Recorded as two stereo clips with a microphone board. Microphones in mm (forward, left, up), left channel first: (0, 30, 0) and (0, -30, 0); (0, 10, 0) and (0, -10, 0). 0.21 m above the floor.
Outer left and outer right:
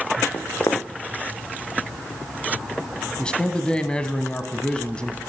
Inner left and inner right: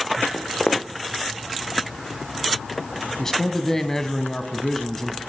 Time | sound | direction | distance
0.3 | footsteps | 55° left (ahead or behind) | 1.6 m
3.2 | a man speaking | 15° left (ahead or behind) | 1.2 m